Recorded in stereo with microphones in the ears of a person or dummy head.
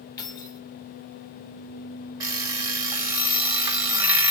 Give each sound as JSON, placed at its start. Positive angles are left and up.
{"t": 0.2, "sound": "keys jangling", "side_deg": 20, "distance_m": 0.8}
{"t": 2.2, "sound": "an alarm clock", "side_deg": -15, "distance_m": 0.5}